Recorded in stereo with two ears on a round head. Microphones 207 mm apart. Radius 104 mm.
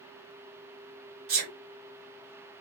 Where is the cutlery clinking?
No cutlery clinking in this recording.